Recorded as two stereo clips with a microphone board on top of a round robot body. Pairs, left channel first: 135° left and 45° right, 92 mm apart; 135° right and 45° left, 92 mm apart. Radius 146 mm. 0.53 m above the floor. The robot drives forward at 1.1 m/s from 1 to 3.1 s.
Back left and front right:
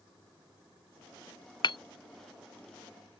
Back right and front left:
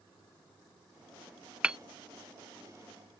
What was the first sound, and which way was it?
Hammering, 120° left.